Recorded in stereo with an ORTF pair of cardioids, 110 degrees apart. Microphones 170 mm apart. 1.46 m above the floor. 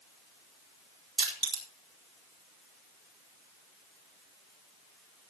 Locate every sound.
1.2 s crushing: 35° right, 4.5 m